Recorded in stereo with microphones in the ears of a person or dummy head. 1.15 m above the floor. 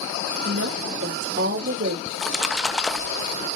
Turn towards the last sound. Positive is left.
turn(degrees=5)  # may be behind; listen again after turning